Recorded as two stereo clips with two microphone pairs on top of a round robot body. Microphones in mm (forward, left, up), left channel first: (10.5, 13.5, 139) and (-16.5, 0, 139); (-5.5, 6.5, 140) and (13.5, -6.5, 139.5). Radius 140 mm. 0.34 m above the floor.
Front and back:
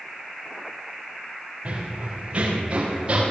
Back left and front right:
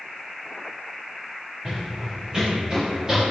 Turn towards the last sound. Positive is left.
turn(degrees=-100)